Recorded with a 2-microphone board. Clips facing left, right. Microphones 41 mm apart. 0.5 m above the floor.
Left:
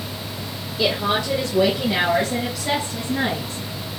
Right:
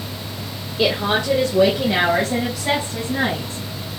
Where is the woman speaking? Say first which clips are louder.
Right 2 dB; 40° right (ahead or behind), 1.2 m; by 3.6 s 35° right (ahead or behind), 4.5 m.